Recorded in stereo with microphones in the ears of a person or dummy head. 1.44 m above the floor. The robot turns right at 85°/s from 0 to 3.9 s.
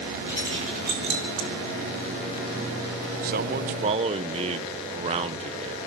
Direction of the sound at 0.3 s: 5° right (ahead or behind).